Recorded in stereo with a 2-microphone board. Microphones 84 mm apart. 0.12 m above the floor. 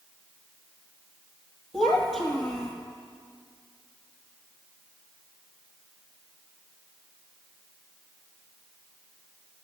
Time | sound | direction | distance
1.7 | a child speaking | 5° left (ahead or behind) | 2.5 m